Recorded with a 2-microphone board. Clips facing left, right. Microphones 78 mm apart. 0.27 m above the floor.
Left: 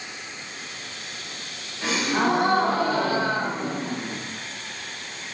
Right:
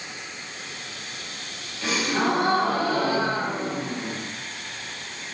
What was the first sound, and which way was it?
A gasp, 25° left (ahead or behind).